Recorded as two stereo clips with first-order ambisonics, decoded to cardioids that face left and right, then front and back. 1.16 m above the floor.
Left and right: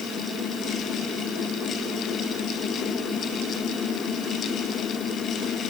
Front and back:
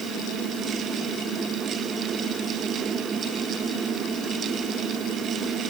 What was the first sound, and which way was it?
Only background noise.